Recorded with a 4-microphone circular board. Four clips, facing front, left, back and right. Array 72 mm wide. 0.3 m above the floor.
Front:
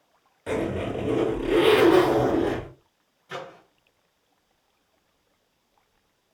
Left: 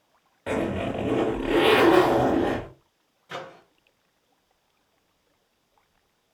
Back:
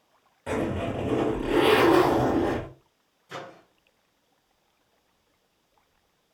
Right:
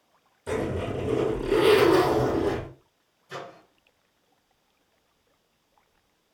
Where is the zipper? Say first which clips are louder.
Left 2 dB, front 1 dB; 85° left, 3.5 m.